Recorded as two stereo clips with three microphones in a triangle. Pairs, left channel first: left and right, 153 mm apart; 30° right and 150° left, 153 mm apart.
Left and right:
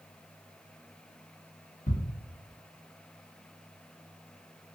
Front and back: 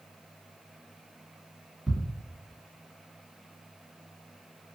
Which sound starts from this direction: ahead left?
Ticking, at 1.9 s.